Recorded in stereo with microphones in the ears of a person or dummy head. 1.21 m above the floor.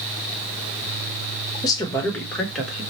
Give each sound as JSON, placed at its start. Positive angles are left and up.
{"t": 1.6, "sound": "a woman speaking", "side_deg": 25, "distance_m": 1.1}